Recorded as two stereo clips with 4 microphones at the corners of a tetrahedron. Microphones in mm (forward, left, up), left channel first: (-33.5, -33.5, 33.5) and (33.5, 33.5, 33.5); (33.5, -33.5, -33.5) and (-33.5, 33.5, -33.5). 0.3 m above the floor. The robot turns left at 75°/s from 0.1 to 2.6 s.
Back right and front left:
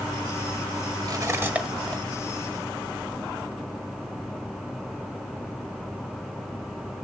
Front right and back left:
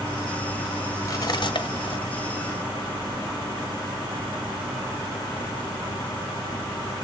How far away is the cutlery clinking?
About 1.4 m.